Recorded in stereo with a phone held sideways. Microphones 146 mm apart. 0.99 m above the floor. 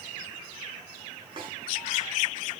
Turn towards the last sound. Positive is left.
turn(degrees=-35)  # may be behind; listen again after turning